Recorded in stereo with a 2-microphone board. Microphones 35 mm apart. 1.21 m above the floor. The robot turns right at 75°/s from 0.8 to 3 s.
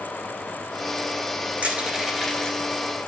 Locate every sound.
1.6 s crushing: 55° right (ahead or behind), 2 m; by 2.7 s 25° left (ahead or behind), 2 m